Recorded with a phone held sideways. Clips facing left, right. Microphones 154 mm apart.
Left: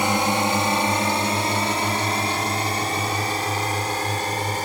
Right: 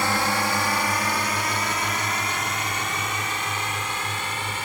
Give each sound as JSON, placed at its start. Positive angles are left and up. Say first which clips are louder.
{"t": 0.0, "sound": "a drone", "louder": "left 3 dB", "side_deg": 20}